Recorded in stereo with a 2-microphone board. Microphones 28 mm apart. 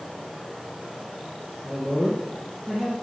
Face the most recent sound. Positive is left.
turn(degrees=0)  # may be behind; listen again after turning